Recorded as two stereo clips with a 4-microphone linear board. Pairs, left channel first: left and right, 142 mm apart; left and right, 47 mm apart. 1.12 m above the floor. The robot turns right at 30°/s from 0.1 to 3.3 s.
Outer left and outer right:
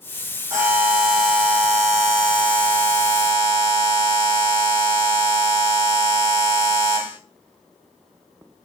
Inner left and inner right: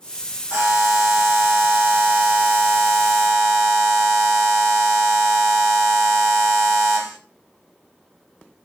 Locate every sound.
0.5 s a buzzer: 20° right, 1.4 m; by 7.2 s 65° left, 1.4 m